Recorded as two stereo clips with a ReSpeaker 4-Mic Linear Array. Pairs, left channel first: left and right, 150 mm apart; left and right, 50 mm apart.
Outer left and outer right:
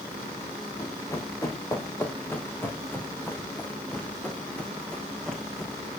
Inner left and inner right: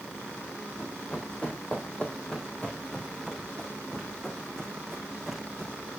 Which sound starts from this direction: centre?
Running footsteps, at 0.8 s.